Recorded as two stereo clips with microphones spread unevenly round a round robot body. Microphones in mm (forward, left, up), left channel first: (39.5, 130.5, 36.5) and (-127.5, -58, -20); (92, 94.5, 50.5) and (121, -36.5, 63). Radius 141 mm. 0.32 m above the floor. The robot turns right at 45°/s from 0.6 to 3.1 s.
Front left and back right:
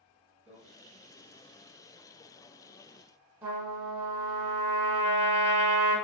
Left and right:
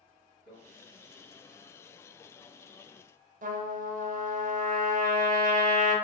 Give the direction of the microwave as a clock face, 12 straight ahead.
3 o'clock.